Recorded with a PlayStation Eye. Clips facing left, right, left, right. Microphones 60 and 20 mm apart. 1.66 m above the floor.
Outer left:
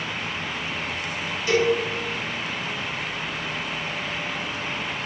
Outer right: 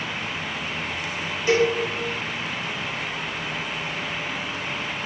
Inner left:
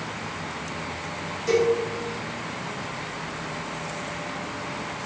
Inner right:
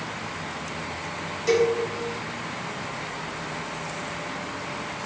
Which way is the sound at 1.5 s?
35° right (ahead or behind).